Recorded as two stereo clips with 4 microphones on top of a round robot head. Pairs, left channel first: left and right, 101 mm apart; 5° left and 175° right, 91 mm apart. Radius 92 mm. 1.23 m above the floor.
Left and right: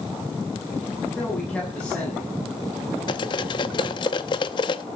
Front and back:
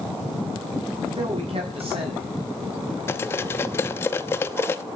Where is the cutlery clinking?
60° left, 0.8 m.